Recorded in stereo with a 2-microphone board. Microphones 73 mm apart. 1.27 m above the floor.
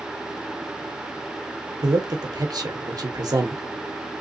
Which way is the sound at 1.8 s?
60° right (ahead or behind).